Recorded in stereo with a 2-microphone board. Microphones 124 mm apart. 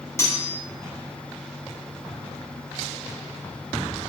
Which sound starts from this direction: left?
Cutlery clinking, at 0.2 s.